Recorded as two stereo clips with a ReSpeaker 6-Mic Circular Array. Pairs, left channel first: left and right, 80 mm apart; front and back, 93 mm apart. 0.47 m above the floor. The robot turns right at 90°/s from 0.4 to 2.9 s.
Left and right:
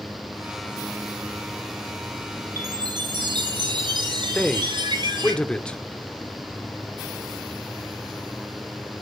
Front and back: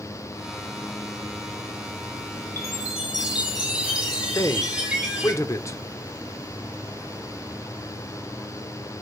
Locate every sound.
2.6 s a chime: 130° right, 7.5 m; by 5.3 s 100° right, 7.5 m
4.3 s a man speaking: 20° left, 1.3 m